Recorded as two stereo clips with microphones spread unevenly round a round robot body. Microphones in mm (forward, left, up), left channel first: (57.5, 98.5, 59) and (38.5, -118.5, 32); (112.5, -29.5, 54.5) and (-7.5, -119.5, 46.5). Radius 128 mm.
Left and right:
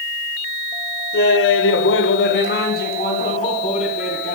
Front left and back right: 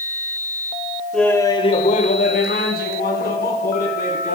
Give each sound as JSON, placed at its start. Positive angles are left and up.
{"t": 1.1, "sound": "laughter", "azimuth_deg": 125, "distance_m": 1.5}